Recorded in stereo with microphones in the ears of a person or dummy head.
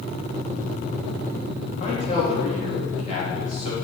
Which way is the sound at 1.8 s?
40° left (ahead or behind).